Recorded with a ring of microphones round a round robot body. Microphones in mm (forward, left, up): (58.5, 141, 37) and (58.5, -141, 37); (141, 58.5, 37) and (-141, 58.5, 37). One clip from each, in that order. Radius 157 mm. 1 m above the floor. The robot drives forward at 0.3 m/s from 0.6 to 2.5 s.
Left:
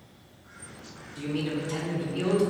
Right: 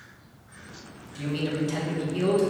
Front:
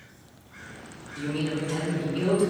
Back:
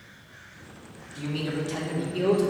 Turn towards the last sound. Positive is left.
turn(degrees=-130)